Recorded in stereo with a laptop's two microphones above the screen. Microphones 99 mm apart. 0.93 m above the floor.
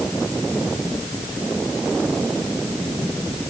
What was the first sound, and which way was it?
Only background noise.